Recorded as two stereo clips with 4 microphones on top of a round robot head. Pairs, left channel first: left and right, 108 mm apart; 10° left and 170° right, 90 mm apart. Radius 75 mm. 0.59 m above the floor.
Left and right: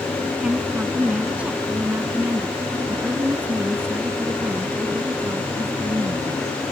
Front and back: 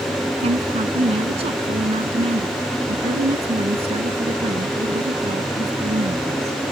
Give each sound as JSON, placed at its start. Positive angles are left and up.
{"t": 0.4, "sound": "a woman speaking", "azimuth_deg": -175}